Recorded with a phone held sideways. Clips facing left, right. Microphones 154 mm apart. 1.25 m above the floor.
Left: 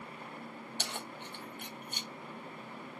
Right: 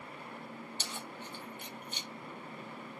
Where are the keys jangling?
65° left (ahead or behind), 0.7 m; by 2.1 s 50° left (ahead or behind), 1.1 m.